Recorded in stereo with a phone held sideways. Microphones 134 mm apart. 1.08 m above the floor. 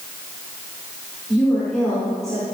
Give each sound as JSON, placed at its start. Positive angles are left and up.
{"t": 1.3, "sound": "a woman speaking", "side_deg": 5, "distance_m": 4.0}